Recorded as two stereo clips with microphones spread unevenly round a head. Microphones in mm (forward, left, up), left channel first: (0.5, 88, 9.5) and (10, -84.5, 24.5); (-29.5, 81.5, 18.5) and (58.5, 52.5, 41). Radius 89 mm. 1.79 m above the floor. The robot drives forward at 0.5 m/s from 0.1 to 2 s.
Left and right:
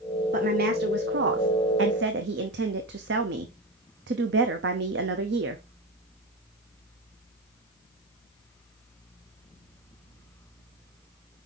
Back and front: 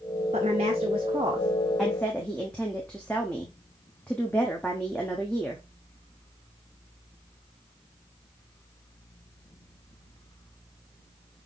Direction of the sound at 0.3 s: 45° right.